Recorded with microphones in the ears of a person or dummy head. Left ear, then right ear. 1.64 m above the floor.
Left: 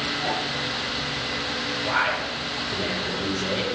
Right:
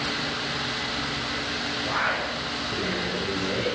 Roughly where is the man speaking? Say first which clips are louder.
Left 2 dB; left.